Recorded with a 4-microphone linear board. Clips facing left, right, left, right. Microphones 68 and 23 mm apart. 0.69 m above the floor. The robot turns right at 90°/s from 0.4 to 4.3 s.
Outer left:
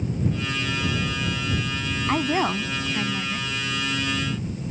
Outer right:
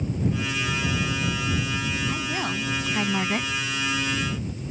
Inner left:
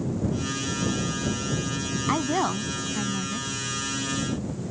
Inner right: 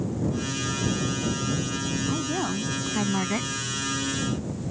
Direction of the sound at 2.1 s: 120° left.